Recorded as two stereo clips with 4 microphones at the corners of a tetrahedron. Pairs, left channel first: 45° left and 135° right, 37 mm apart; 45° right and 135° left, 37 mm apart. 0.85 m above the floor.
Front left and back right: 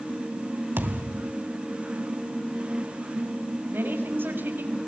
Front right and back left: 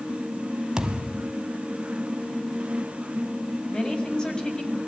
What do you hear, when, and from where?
0.8 s a thud: 155° right, 2 m
3.7 s a woman speaking: 115° right, 6 m